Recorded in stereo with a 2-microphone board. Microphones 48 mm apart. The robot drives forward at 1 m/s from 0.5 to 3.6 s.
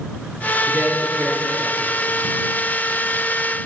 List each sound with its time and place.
0.7 s a man speaking: 45° right (ahead or behind), 1.4 m; by 1.9 s 25° right (ahead or behind), 2.5 m